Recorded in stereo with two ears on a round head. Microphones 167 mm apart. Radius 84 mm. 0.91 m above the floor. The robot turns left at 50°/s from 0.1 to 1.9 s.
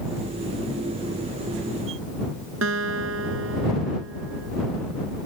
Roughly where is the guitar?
Right.